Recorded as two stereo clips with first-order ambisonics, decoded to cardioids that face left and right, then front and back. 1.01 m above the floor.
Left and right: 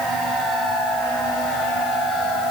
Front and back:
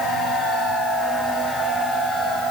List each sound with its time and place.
Only background noise.